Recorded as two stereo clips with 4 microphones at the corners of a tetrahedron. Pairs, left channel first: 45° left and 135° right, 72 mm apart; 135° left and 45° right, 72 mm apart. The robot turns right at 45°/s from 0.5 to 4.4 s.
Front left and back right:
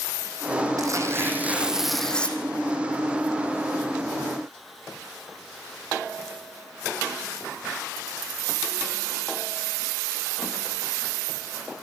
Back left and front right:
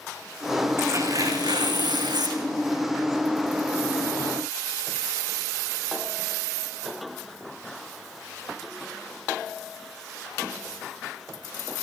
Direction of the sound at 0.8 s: 95° right.